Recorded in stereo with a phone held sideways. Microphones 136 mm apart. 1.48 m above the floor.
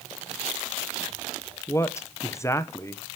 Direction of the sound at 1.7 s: 20° left (ahead or behind).